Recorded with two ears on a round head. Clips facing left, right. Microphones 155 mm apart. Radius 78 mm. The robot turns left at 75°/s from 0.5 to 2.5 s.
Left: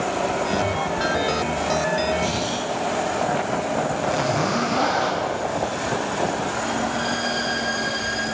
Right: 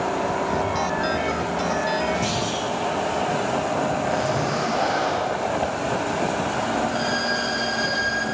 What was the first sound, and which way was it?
A clunk, 5° right (ahead or behind).